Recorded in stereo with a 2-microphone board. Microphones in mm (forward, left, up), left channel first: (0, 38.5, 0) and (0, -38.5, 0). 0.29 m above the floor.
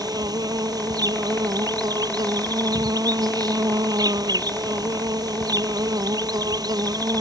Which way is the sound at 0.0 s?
60° right (ahead or behind).